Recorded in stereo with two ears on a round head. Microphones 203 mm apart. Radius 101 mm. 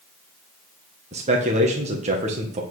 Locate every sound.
1.1 s a man speaking: 30° right (ahead or behind), 1.5 m